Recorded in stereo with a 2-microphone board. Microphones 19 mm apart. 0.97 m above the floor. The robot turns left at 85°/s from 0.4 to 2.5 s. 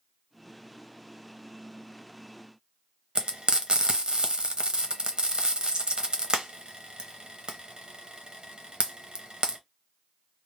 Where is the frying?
50° right (ahead or behind), 0.7 m.